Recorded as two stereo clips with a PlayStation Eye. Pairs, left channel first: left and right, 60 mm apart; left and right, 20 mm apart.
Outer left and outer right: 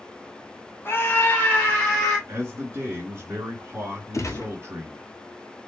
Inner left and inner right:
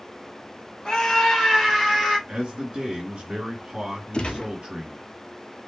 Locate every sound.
0.8 s a scream: 40° left (ahead or behind), 1.5 m; by 2.2 s 10° left (ahead or behind), 2.5 m
2.3 s a man speaking: 45° right (ahead or behind), 1.9 m
4.1 s a gunshot: 55° left (ahead or behind), 1.0 m